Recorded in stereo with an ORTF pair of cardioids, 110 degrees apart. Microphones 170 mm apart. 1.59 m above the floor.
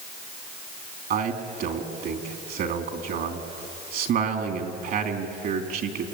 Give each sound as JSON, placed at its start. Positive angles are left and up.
{"t": 1.1, "sound": "a man speaking", "azimuth_deg": -60, "distance_m": 3.0}